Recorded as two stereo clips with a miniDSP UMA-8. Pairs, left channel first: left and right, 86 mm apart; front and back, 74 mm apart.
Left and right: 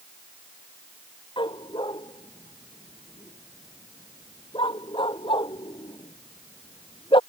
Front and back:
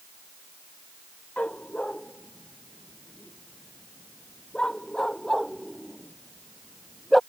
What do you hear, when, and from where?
1.4 s a dog barking: 75° left; by 7.2 s 90° left